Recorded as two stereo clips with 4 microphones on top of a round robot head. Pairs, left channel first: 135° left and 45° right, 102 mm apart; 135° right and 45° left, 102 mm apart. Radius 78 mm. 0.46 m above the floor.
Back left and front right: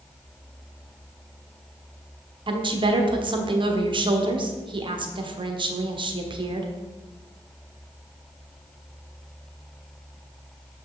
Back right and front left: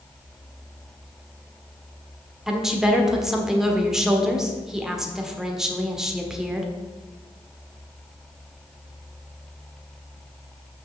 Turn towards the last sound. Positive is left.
turn(degrees=-40)